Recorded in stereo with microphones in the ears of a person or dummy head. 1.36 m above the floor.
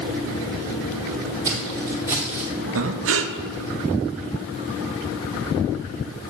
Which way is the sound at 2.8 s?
70° right (ahead or behind).